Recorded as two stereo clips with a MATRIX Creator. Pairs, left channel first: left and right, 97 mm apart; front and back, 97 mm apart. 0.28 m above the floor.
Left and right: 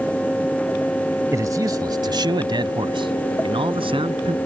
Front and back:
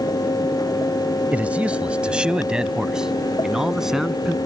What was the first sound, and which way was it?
A man speaking, 115° right.